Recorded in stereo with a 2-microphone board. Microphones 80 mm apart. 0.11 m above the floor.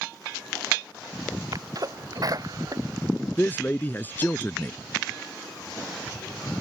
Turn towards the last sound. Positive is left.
turn(degrees=25)  # may be behind; listen again after turning